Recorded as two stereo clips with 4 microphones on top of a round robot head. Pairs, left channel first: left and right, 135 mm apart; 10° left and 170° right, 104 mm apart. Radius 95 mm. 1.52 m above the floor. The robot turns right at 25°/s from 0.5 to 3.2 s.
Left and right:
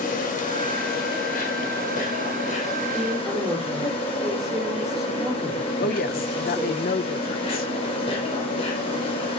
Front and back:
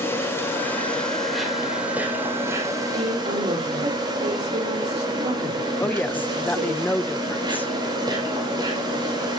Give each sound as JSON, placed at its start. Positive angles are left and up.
{"t": 0.0, "sound": "an insect", "azimuth_deg": 75, "distance_m": 5.0}
{"t": 2.9, "sound": "a woman speaking", "azimuth_deg": 175, "distance_m": 6.0}
{"t": 5.8, "sound": "a woman speaking", "azimuth_deg": 80, "distance_m": 1.1}